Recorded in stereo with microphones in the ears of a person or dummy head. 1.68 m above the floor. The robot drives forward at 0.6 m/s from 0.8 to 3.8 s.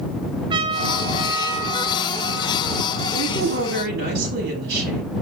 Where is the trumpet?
25° right (ahead or behind), 1.4 m; by 3.0 s 15° right (ahead or behind), 2.5 m.